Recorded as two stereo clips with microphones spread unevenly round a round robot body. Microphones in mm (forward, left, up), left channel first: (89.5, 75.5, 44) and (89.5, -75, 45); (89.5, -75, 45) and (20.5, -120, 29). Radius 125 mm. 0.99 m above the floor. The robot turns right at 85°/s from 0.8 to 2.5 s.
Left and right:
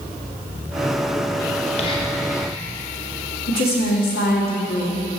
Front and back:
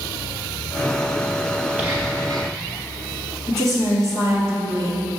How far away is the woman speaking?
About 1.6 m.